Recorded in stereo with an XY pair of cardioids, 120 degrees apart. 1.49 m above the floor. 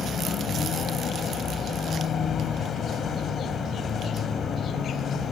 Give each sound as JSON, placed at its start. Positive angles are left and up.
{"t": 0.0, "sound": "a vehicle", "azimuth_deg": 45}